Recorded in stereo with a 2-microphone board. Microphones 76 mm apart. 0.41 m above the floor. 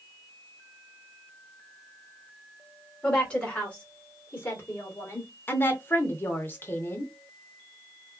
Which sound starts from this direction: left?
A woman speaking, at 5.5 s.